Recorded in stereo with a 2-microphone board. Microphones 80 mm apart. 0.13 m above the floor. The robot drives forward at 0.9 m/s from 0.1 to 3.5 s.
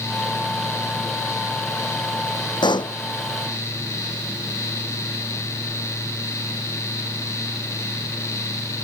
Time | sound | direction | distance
2.6 | a pop | 70° left (ahead or behind) | ?